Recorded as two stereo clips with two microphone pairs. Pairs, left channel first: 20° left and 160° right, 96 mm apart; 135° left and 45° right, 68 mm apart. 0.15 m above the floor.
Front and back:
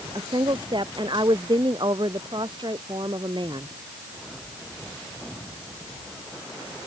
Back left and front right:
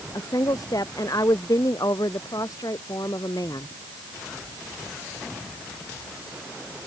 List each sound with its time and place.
0.1 s a woman speaking: 160° left